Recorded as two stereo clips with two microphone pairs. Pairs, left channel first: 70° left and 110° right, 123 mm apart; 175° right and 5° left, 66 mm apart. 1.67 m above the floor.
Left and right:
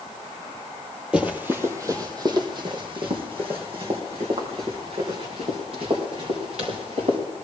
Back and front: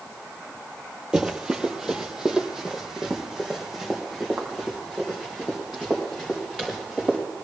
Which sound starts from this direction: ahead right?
Running footsteps, at 1.1 s.